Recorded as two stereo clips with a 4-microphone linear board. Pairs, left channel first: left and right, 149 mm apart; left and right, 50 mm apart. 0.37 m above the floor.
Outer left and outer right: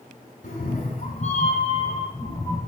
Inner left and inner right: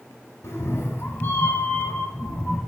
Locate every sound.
0.4 s a cat meowing: 75° left (ahead or behind), 1.9 m; by 2.6 s 25° left (ahead or behind), 2.5 m